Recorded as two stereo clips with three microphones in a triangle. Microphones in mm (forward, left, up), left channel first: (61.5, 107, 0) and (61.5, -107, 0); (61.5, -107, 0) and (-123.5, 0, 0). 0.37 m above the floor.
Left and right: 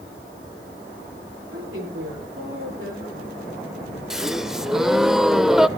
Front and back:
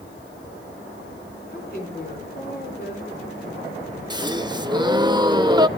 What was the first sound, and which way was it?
A woman speaking, 75° right.